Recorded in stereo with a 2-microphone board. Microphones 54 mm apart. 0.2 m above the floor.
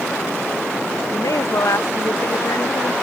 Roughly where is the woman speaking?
Left.